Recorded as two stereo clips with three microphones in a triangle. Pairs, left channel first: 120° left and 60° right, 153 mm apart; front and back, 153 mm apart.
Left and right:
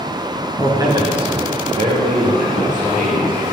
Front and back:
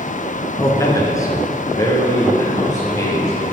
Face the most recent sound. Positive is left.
turn(degrees=-65)